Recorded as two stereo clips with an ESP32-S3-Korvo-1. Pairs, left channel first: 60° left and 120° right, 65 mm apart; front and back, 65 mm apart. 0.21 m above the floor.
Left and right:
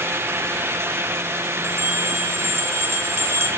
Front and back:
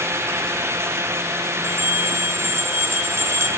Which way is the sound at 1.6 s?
150° right.